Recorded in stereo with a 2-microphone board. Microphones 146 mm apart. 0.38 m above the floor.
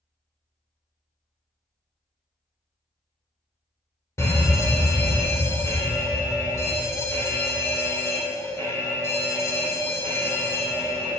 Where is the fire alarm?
20° left (ahead or behind), 2 m.